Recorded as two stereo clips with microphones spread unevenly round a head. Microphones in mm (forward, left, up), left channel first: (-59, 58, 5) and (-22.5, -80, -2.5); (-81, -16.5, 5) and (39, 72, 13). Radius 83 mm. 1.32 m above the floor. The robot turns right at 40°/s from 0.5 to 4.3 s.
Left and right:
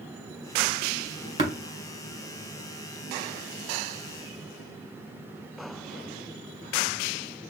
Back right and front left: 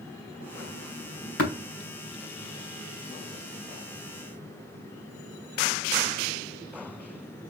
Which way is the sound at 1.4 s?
130° right.